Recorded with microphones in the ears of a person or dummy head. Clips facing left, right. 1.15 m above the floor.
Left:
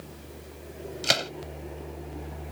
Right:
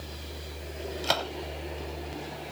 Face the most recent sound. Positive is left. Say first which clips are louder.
# even
turn(degrees=25)  # may be behind; listen again after turning